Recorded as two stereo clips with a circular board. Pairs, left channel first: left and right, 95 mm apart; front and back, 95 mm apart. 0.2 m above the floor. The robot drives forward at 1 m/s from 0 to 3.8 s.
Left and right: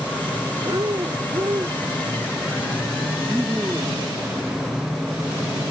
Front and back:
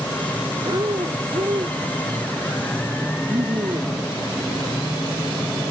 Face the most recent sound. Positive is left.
turn(degrees=-165)